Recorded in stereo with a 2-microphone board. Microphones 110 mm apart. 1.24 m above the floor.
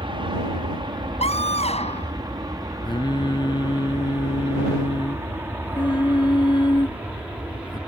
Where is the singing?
40° left (ahead or behind).